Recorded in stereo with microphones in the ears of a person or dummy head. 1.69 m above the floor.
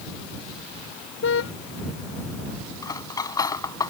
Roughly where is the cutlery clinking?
Left.